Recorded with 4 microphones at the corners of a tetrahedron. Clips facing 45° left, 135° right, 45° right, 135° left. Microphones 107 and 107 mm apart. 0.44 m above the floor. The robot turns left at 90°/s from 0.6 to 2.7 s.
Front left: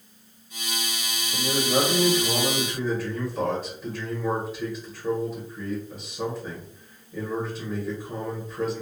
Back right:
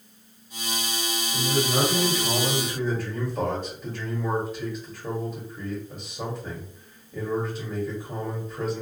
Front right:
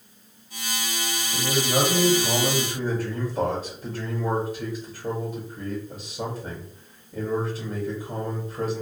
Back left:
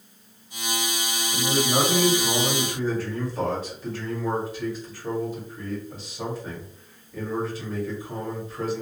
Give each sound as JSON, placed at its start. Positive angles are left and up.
{"t": 1.3, "sound": "a man speaking", "azimuth_deg": 85, "distance_m": 1.4}